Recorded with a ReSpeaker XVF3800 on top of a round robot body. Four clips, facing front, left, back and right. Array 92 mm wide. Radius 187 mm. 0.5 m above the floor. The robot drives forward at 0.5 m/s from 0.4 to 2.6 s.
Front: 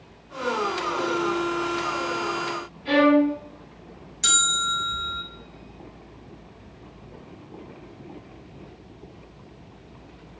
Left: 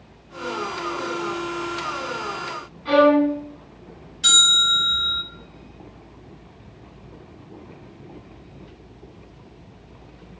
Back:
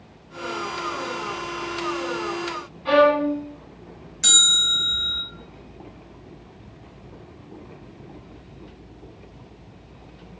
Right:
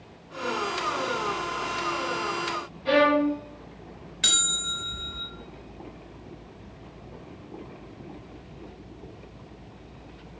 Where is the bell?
120° right, 1.3 m.